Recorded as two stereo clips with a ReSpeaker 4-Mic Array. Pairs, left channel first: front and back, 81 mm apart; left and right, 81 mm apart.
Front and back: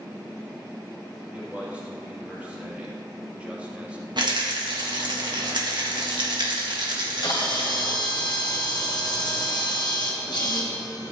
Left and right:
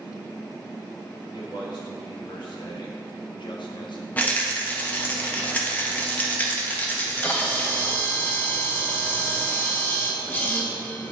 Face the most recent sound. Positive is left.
turn(degrees=25)